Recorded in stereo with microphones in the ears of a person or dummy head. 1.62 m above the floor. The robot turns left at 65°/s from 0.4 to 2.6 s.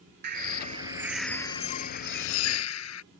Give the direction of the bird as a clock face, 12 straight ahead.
4 o'clock.